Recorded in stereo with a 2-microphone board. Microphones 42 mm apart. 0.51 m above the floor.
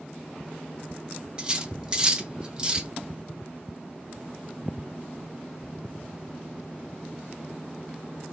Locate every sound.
1.4 s cutlery clinking: 20° right (ahead or behind), 0.6 m